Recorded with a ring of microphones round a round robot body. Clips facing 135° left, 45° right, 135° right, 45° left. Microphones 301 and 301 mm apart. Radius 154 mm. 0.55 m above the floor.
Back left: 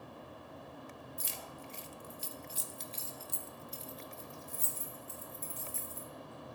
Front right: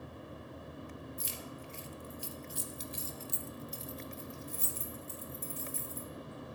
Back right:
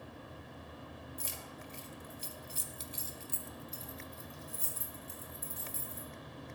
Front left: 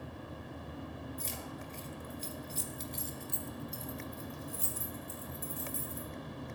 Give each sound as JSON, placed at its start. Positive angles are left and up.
{"t": 1.2, "sound": "keys jangling", "azimuth_deg": 150, "distance_m": 1.0}